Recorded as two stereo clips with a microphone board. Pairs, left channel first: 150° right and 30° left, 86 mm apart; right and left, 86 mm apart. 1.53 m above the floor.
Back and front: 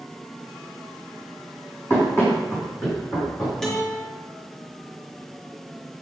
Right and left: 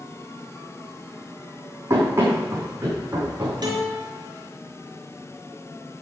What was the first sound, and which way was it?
Running footsteps, 150° left.